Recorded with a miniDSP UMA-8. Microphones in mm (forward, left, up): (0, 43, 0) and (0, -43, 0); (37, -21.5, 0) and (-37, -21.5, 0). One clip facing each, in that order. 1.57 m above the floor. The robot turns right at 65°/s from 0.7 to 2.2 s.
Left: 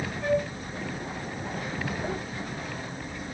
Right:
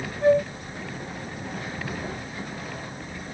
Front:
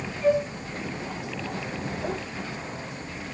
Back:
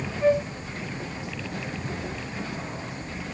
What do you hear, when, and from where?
0.2 s a flute: 135° right, 2.5 m